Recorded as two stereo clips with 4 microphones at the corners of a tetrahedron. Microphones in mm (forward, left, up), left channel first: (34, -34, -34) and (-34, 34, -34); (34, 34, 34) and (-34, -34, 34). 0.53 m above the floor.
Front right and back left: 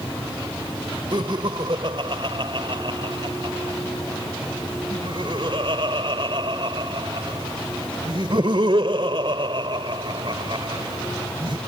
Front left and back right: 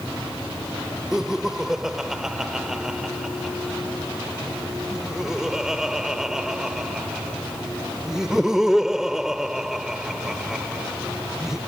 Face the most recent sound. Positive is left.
turn(degrees=140)